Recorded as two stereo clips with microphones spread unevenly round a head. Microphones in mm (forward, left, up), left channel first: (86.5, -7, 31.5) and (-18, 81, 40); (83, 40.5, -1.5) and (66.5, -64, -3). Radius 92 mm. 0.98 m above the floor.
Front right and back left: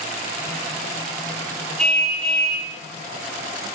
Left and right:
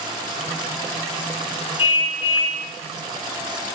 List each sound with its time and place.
1.8 s a car horn: 45° left, 10 m